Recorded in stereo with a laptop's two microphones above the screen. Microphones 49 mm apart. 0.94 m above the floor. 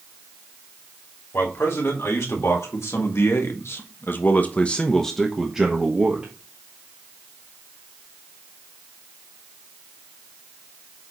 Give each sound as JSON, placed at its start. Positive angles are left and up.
{"t": 1.3, "sound": "a man speaking", "side_deg": 65, "distance_m": 2.5}